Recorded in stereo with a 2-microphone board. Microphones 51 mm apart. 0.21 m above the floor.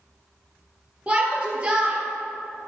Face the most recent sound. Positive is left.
turn(degrees=-25)  # may be behind; listen again after turning